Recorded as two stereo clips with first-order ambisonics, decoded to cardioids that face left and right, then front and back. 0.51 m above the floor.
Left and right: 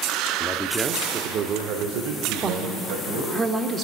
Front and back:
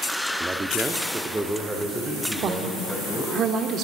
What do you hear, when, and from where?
0.4 s a man speaking: 125° left, 0.6 m; by 3.4 s 90° right, 2.5 m
2.4 s a woman speaking: 145° right, 1.0 m